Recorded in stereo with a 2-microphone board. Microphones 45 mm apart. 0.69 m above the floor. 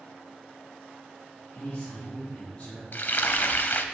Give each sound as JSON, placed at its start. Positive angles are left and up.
{"t": 1.6, "sound": "a man speaking", "side_deg": 35, "distance_m": 2.0}
{"t": 2.9, "sound": "frying", "side_deg": 55, "distance_m": 0.7}